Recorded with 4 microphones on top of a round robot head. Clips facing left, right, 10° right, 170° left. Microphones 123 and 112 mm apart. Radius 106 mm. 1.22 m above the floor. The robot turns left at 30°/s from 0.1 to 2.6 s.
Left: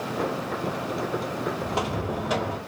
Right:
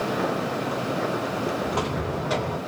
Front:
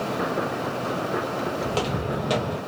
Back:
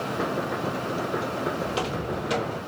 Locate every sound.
1.6 s footsteps: 25° left, 1.6 m; by 2.6 s straight ahead, 1.6 m